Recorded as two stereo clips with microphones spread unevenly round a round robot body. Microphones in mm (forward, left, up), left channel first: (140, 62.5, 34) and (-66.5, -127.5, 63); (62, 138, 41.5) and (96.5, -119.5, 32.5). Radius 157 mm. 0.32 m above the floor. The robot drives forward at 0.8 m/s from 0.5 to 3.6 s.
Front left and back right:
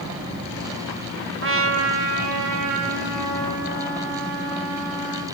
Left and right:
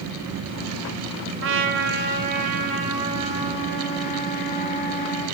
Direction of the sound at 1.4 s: 95° right.